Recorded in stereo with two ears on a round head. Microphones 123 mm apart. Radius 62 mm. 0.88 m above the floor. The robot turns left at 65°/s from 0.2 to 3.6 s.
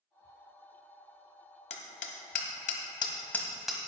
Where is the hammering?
50° left (ahead or behind), 1.3 m; by 3.8 s centre (ahead or behind), 1.3 m.